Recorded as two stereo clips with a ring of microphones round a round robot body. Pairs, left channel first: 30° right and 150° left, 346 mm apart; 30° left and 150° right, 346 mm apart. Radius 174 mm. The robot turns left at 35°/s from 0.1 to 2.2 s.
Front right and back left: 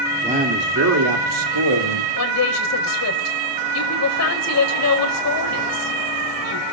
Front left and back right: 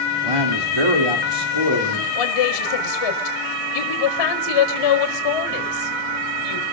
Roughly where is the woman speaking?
Ahead.